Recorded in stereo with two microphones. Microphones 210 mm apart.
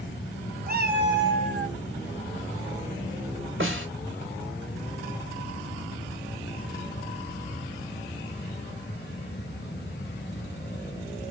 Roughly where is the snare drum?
Right.